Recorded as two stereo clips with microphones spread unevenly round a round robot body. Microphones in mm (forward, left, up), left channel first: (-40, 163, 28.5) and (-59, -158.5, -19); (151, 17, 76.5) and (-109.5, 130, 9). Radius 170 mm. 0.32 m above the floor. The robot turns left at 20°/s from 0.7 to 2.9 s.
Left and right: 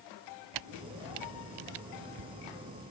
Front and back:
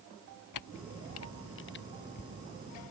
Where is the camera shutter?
60° right; by 2.9 s 105° right.